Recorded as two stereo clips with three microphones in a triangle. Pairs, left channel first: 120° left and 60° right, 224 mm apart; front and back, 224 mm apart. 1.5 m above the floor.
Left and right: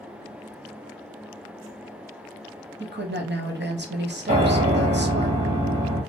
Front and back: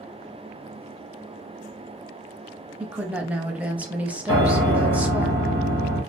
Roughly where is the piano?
Ahead.